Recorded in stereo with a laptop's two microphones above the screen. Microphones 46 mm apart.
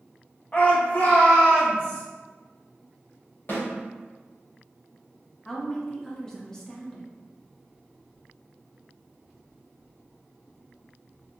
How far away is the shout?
About 0.8 m.